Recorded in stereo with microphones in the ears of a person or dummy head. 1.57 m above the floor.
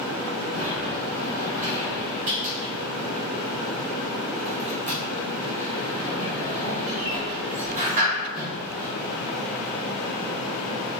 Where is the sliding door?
40° right (ahead or behind), 1.2 m.